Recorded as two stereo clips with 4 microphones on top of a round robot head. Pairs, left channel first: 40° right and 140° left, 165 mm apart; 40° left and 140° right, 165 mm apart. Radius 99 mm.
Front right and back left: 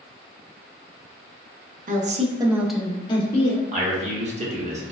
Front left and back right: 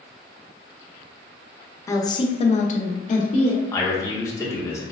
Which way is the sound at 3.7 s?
110° left.